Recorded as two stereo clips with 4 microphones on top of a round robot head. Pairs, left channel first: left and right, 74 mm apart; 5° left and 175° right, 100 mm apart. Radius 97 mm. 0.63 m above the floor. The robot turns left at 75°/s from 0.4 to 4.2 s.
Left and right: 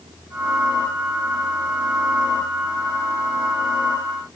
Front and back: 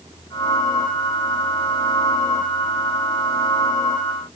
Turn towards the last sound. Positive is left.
No sound to turn to.